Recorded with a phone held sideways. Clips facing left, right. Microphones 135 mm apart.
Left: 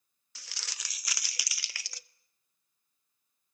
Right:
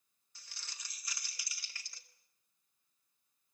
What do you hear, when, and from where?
0.3 s crumpling: 85° left, 0.5 m